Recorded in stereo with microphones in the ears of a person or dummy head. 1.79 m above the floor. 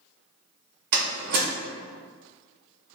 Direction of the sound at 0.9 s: 65° right (ahead or behind).